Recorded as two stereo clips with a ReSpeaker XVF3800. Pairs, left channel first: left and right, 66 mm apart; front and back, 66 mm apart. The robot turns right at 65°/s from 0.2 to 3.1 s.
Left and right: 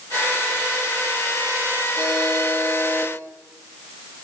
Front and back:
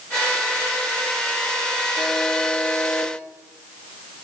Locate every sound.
2.0 s a buzzer: 105° right, 6 m; by 3.1 s 30° right, 6 m